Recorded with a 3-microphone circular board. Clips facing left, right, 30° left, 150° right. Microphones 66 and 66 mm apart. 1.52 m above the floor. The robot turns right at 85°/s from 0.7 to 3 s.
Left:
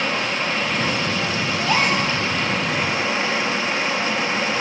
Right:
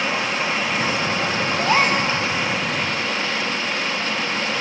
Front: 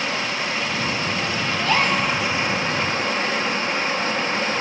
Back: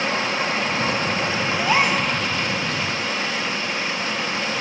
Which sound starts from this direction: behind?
Running water, at 0.0 s.